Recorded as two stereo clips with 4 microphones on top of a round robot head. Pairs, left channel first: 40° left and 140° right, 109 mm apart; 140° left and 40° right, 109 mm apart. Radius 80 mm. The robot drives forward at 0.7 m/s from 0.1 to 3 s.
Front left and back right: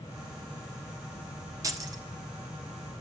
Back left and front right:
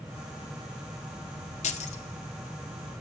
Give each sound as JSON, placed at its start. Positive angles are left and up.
{"t": 1.6, "sound": "keys jangling", "azimuth_deg": 160, "distance_m": 1.6}